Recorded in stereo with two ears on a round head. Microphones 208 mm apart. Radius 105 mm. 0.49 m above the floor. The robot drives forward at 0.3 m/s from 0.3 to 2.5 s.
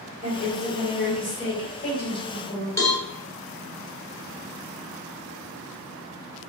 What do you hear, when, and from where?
0.2 s a woman speaking: 30° left (ahead or behind), 1.6 m; by 2.7 s 20° left (ahead or behind), 2 m
2.8 s a cowbell: 15° left (ahead or behind), 0.9 m